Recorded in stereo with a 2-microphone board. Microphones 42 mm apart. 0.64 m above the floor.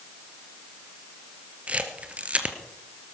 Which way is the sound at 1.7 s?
30° right (ahead or behind).